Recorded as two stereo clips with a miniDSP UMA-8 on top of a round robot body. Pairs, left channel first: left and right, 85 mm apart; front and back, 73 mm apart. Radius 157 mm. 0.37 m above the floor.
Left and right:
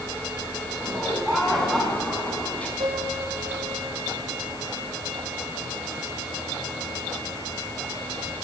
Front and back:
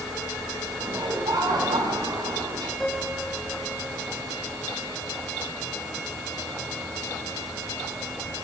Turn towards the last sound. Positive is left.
turn(degrees=-85)